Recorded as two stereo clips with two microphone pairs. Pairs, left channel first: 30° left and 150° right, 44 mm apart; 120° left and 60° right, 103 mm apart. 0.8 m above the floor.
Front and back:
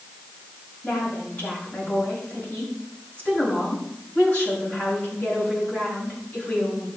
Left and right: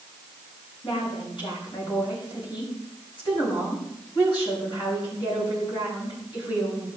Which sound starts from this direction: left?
A woman speaking, at 0.8 s.